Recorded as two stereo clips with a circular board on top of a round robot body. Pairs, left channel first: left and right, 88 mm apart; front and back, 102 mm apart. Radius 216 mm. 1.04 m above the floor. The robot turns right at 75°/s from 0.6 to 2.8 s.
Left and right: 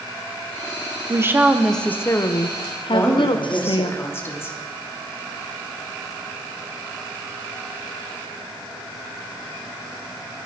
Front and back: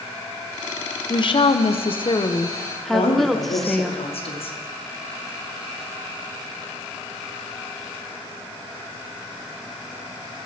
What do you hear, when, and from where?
1.1 s a woman speaking: 40° right, 1.2 m; by 3.9 s 85° left, 1.2 m
2.9 s a woman speaking: 25° left, 2.5 m